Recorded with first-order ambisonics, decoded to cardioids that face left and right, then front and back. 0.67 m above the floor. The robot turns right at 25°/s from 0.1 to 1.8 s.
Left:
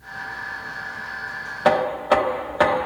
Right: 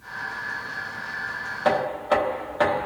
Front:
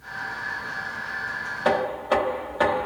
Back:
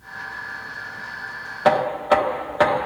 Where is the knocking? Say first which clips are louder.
Left 4 dB, back 6 dB; 140° left, 0.5 m.